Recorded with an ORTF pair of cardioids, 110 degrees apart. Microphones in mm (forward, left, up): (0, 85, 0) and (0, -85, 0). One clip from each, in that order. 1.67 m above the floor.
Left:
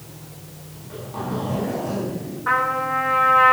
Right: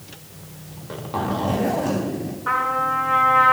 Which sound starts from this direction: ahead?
A trumpet, at 2.5 s.